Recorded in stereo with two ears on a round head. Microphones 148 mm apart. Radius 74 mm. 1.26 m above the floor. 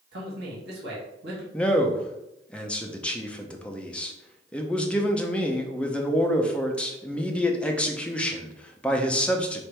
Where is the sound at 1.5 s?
5° left (ahead or behind), 0.6 m.